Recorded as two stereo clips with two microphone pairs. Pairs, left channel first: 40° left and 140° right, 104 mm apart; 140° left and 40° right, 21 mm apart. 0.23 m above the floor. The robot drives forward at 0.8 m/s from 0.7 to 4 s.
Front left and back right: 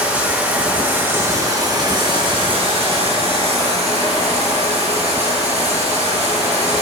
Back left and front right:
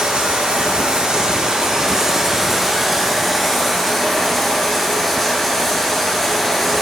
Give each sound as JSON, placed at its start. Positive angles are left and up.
{"t": 0.0, "sound": "running water", "azimuth_deg": -65, "distance_m": 1.7}